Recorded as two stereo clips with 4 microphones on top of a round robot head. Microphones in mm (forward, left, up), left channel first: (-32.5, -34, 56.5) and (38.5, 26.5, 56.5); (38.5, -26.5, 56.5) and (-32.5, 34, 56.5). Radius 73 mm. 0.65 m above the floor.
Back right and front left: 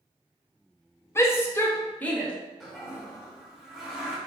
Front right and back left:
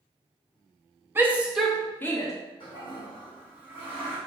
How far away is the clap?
I don't hear a clap.